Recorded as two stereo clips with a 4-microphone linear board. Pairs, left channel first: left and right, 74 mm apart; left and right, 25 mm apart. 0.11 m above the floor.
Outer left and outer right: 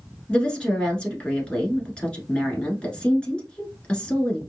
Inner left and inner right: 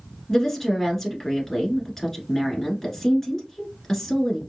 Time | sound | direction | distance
0.3 | a woman speaking | 15° left (ahead or behind) | 1.2 m